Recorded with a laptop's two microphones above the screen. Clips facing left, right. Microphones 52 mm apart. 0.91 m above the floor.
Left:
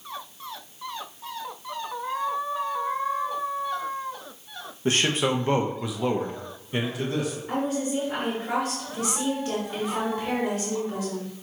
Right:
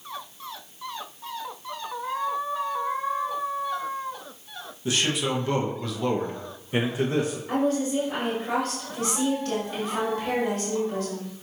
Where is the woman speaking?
15° left (ahead or behind), 3.5 m.